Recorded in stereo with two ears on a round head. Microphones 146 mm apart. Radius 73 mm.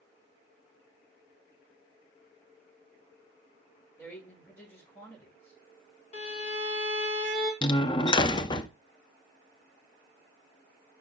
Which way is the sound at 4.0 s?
15° left (ahead or behind).